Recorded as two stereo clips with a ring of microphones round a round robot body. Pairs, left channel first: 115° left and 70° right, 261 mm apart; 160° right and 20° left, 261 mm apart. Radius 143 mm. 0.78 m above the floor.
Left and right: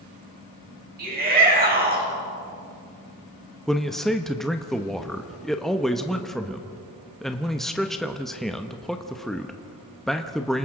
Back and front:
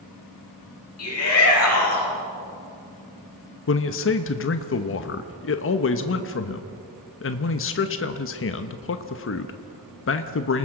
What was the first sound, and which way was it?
A shout, 125° right.